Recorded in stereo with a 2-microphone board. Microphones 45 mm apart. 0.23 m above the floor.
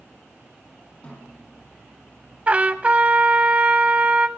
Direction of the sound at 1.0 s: 35° left (ahead or behind).